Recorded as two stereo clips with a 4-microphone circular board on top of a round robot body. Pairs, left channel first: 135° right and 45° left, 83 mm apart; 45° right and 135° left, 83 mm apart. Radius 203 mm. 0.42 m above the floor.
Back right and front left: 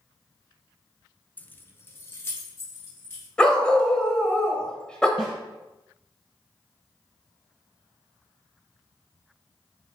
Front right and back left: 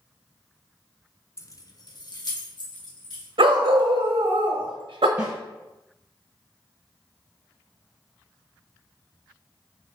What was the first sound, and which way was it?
Keys jangling, 75° right.